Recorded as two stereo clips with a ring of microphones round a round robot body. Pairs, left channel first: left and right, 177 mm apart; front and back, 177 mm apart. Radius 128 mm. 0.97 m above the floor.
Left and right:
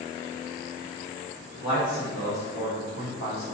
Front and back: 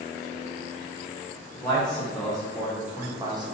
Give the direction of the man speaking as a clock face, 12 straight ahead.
9 o'clock.